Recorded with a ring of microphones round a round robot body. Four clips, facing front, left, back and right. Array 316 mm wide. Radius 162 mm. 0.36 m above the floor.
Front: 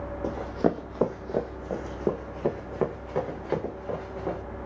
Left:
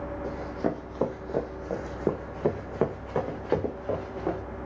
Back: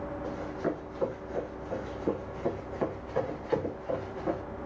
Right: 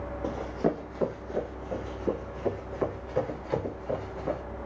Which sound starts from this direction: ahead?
Running footsteps, at 0.2 s.